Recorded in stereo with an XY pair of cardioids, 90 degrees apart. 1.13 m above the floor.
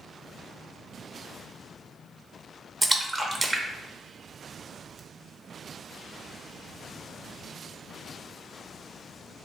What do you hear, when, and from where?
2.8 s a splash: 20° right, 0.6 m